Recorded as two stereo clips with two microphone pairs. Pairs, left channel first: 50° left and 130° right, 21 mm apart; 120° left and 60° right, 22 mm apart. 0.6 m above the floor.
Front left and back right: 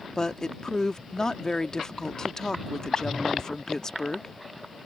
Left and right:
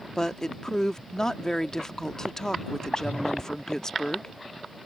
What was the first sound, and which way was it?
A woman speaking, 80° left.